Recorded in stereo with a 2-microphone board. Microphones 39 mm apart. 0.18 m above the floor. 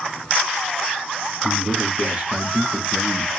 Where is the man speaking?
35° right (ahead or behind), 1.6 m; by 3.3 s 25° right (ahead or behind), 1.2 m.